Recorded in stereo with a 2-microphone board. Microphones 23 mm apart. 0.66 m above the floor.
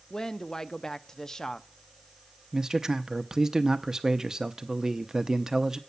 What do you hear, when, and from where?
0.1 s a woman speaking: 20° left (ahead or behind), 0.7 m
2.5 s a man speaking: 25° right (ahead or behind), 0.8 m